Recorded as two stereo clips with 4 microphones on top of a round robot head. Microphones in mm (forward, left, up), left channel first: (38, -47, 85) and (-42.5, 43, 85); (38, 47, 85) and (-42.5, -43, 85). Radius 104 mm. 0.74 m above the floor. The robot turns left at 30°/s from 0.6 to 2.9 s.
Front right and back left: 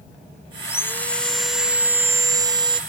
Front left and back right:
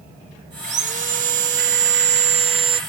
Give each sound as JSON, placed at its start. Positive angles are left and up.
{"t": 0.6, "sound": "sawing", "azimuth_deg": -115}